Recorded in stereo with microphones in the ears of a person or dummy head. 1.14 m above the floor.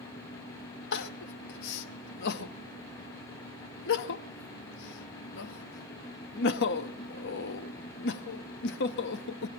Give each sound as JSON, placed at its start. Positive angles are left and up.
{"t": 0.9, "sound": "crying", "side_deg": 55, "distance_m": 0.8}